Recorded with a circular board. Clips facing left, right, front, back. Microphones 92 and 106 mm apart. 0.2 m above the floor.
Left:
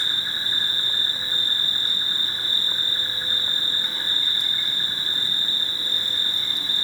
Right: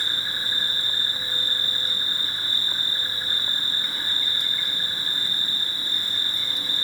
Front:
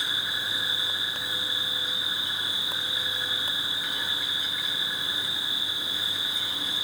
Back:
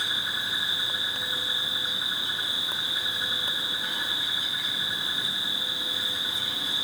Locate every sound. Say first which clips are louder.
0.0 s an insect: even, even; 130° left, 3 m